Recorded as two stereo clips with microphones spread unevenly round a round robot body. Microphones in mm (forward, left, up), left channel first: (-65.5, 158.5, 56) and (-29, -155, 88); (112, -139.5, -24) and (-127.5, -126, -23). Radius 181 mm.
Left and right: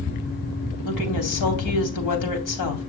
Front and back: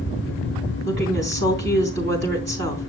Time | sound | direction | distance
0.8 | a woman speaking | 115° left | 3 m